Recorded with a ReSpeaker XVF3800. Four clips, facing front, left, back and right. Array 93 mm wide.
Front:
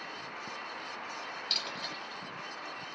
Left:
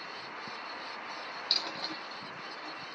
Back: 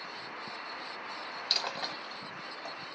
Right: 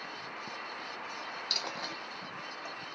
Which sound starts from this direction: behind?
A dropped coin, at 1.5 s.